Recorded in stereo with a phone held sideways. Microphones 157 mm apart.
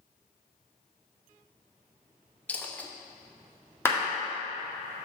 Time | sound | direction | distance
2.5 | a dropped coin | 10° left (ahead or behind) | 0.6 m
3.9 | a clap | 15° left (ahead or behind) | 1.7 m